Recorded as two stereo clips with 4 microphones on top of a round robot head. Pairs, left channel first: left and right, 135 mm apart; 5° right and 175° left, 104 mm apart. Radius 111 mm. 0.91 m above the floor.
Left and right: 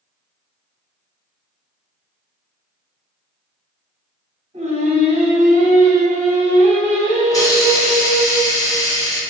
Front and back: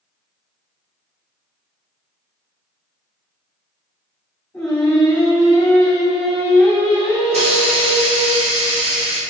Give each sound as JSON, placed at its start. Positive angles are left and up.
{"t": 4.5, "sound": "singing", "azimuth_deg": -75, "distance_m": 1.2}
{"t": 7.3, "sound": "a hiss", "azimuth_deg": 155, "distance_m": 1.1}